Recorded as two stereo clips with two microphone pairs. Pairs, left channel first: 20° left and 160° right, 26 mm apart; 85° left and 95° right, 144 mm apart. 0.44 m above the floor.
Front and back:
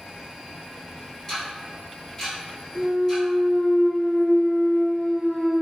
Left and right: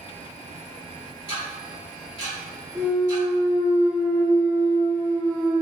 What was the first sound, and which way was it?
Ticking, 85° left.